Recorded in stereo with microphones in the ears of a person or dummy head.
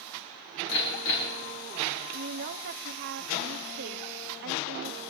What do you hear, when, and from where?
0.7 s hammering: 70° left (ahead or behind), 4 m
2.1 s a woman speaking: 55° right (ahead or behind), 0.7 m